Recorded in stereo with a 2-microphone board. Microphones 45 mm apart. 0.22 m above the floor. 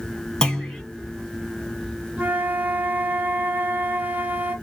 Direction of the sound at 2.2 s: 40° right (ahead or behind).